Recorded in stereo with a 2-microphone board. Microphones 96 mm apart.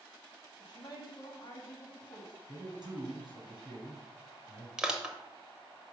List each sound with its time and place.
0.6 s a woman speaking: 50° left (ahead or behind), 2.5 m
2.5 s a man speaking: 50° right (ahead or behind), 3.5 m
4.8 s crushing: 10° right (ahead or behind), 0.9 m